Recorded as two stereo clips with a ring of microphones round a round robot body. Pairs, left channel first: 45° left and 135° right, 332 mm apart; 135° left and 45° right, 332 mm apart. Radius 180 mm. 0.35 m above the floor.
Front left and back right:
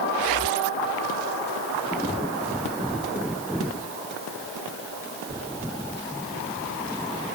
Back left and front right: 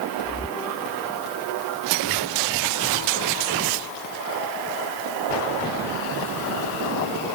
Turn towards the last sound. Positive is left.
No sound to turn to.